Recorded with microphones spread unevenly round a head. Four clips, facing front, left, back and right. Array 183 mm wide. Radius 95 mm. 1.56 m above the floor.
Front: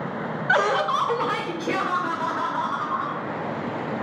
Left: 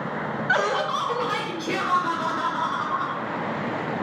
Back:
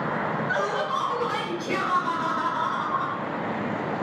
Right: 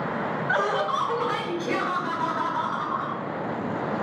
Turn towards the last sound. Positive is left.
turn(degrees=5)